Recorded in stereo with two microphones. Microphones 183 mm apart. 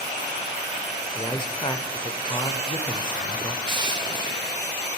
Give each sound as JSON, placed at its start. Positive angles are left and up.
{"t": 1.1, "sound": "a man speaking", "side_deg": 25, "distance_m": 1.0}
{"t": 3.6, "sound": "crushing", "side_deg": -25, "distance_m": 0.6}